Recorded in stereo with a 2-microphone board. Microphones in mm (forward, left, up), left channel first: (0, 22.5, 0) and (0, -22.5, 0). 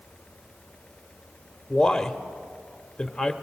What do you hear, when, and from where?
1.7 s a man speaking: 10° left (ahead or behind), 1.0 m